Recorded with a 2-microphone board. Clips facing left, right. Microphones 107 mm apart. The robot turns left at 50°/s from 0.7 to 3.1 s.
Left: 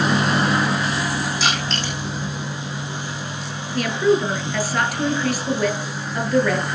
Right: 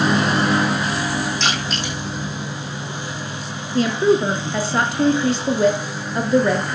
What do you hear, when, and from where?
1.4 s crushing: 5° left (ahead or behind), 7 m; by 1.9 s 20° right (ahead or behind), 7 m
3.8 s a woman speaking: 25° right (ahead or behind), 1.7 m